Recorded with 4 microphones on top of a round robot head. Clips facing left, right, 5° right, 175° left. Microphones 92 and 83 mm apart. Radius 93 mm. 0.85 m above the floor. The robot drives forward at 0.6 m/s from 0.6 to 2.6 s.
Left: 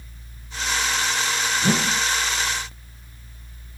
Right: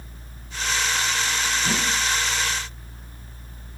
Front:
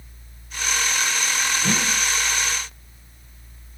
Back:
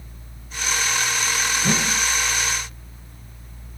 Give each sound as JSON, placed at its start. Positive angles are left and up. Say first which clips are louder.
{"t": 1.6, "sound": "a whoosh", "louder": "left 6 dB, back 2 dB", "azimuth_deg": 90, "distance_m": 0.6}